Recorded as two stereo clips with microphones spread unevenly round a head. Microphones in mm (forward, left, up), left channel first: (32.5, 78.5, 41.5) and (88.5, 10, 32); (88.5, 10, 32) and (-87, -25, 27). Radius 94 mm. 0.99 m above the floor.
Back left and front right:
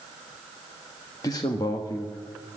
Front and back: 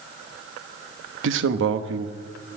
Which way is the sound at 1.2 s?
170° right.